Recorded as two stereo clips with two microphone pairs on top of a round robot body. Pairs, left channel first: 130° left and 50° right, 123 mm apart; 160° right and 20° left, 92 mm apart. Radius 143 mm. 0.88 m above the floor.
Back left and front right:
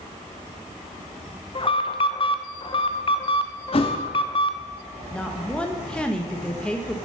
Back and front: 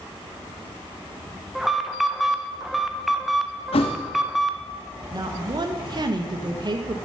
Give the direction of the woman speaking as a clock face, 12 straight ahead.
10 o'clock.